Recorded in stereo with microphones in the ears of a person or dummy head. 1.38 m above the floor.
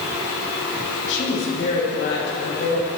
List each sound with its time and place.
1.1 s a woman speaking: 70° left (ahead or behind), 6 m; by 2.9 s 60° left (ahead or behind), 7.5 m